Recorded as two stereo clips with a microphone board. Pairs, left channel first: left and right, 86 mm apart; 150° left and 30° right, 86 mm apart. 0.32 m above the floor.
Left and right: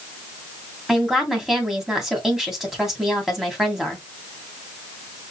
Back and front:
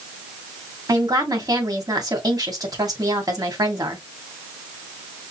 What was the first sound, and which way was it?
A woman speaking, 5° right.